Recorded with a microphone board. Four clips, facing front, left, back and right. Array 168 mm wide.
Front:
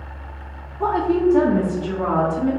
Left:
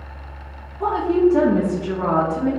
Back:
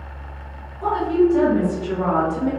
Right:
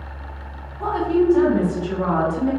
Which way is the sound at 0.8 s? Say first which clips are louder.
Left 2 dB, even; 10° left.